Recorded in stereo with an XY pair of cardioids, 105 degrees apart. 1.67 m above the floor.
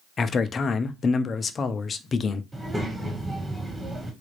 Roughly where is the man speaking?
Ahead left.